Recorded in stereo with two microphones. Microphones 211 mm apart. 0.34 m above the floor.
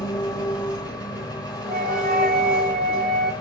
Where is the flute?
45° right (ahead or behind), 0.8 m.